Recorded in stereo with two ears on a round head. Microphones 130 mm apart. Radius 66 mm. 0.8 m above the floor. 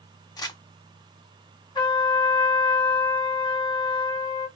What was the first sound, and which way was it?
Crumpling, 25° left (ahead or behind).